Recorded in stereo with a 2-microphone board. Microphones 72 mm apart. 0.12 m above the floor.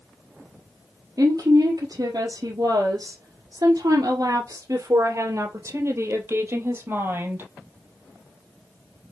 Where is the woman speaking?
55° right (ahead or behind), 2.5 m; by 7.5 s 25° right (ahead or behind), 3 m.